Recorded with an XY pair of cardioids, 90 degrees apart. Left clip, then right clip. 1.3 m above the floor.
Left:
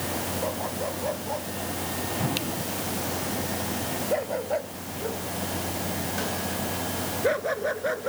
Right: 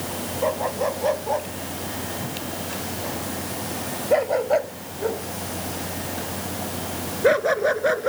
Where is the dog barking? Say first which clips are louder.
Right 7 dB; 55° right; by 8.1 s 50° right.